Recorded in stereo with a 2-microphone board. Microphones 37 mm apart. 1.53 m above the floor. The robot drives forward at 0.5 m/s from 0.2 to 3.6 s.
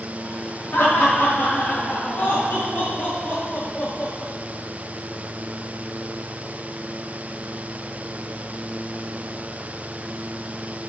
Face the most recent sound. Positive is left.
turn(degrees=50)  # may be behind; listen again after turning